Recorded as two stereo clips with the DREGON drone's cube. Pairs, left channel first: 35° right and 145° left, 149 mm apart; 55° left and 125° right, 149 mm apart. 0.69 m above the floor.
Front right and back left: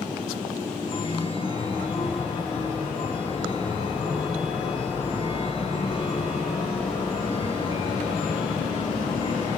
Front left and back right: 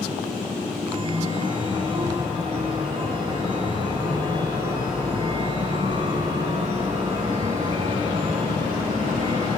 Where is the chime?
80° right, 0.9 m.